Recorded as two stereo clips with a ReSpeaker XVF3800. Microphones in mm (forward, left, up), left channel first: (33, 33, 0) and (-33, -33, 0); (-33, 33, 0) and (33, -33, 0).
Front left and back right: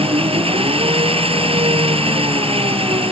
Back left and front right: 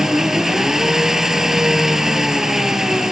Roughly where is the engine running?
Behind right.